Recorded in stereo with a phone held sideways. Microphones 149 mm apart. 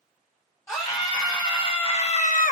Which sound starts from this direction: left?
A scream, at 0.7 s.